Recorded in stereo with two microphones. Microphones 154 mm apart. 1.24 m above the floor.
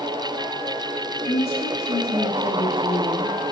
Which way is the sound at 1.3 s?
85° left.